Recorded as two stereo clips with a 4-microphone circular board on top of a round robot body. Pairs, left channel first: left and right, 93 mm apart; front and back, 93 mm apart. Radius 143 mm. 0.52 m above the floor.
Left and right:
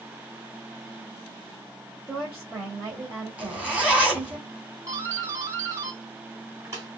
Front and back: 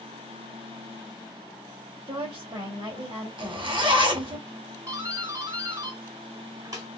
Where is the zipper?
165° right, 2.5 m.